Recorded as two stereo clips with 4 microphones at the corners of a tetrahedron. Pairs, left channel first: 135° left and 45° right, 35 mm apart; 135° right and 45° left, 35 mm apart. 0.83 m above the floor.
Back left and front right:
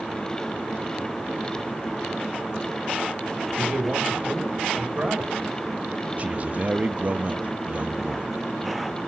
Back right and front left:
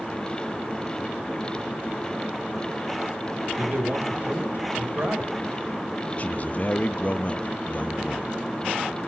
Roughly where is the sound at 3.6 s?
Ahead.